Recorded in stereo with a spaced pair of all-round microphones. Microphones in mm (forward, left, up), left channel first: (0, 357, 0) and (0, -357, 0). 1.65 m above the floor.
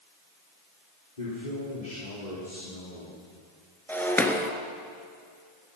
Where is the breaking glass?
5° left (ahead or behind), 2 m.